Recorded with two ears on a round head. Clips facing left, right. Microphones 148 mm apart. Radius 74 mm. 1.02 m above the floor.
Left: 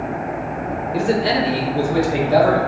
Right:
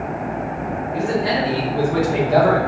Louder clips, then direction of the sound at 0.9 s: Left 2 dB; 40° left (ahead or behind).